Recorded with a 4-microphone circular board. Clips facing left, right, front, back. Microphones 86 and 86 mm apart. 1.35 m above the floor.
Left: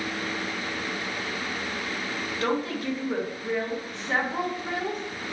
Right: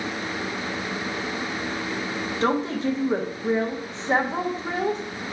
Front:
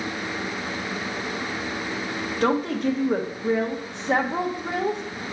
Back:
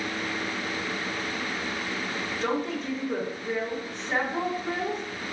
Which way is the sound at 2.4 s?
25° right.